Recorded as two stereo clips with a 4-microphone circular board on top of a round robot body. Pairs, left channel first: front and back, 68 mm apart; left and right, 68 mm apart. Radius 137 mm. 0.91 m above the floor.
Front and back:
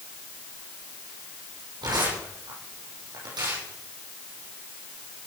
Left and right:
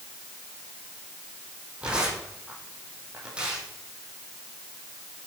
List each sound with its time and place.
1.8 s tearing paper: 165° right, 8 m